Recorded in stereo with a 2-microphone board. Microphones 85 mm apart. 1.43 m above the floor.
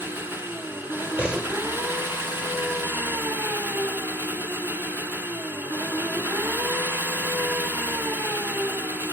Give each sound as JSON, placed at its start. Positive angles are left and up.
{"t": 0.0, "sound": "an engine running", "side_deg": -25, "distance_m": 2.0}
{"t": 1.2, "sound": "a door slam", "side_deg": -15, "distance_m": 4.0}